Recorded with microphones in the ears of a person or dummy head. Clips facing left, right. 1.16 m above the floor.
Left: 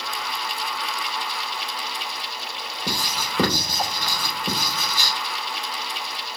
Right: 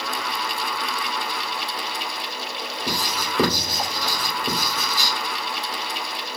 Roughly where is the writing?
Centre.